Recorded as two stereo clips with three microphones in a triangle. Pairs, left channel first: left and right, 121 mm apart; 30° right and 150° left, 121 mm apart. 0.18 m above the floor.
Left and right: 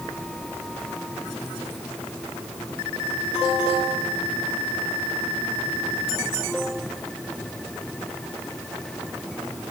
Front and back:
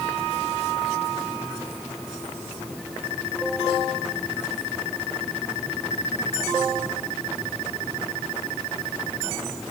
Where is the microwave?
No microwave in this recording.